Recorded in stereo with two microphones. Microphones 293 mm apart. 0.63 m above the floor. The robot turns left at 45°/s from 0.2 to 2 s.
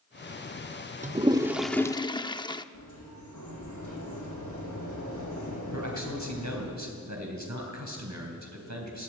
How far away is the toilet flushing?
About 0.6 m.